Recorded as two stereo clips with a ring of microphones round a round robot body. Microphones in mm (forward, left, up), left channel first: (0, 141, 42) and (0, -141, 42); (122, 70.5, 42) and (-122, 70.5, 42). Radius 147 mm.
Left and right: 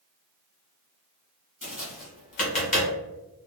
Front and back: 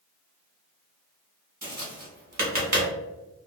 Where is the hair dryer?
I don't hear a hair dryer.